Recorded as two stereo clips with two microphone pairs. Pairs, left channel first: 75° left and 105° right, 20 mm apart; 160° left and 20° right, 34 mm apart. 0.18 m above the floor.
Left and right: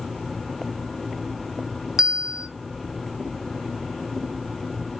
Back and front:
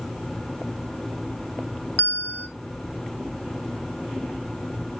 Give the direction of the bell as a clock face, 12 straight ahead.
6 o'clock.